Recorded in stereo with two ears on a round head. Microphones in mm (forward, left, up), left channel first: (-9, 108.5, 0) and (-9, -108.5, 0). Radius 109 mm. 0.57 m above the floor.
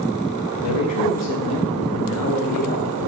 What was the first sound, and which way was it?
A man speaking, 80° left.